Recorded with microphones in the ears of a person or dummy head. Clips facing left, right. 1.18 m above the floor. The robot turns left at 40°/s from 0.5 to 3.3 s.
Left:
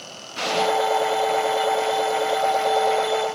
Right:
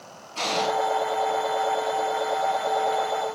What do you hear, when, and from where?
0.3 s an explosion: 20° left (ahead or behind), 5.5 m; by 0.7 s 25° left (ahead or behind), 5.5 m